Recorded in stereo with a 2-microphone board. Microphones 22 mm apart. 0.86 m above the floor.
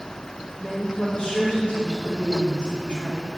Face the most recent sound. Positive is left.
turn(degrees=60)  # may be behind; listen again after turning